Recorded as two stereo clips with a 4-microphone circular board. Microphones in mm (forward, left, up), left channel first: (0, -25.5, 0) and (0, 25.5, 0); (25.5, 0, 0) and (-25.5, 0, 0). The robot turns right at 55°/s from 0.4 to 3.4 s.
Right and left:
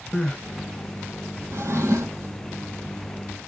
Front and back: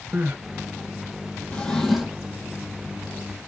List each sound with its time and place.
0.1 s crying: 155° right, 1.5 m
1.5 s a drawer: 65° left, 1.6 m; by 2.4 s 115° left, 1.6 m